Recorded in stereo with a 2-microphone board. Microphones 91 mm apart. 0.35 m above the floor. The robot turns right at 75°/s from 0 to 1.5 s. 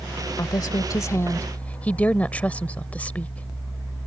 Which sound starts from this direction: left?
A woman speaking, at 0.4 s.